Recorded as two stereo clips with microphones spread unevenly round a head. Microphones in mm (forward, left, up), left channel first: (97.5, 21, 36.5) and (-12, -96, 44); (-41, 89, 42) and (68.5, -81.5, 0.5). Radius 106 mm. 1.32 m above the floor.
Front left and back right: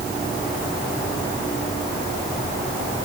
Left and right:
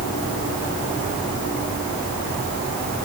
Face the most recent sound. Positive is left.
No sound to turn to.